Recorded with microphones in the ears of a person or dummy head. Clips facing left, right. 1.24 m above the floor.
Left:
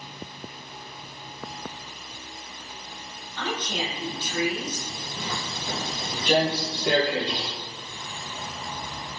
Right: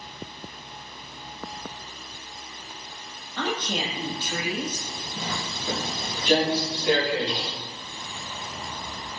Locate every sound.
3.4 s a woman speaking: 35° right (ahead or behind), 0.9 m
5.2 s footsteps: 25° right (ahead or behind), 1.8 m; by 7.5 s 55° left (ahead or behind), 2 m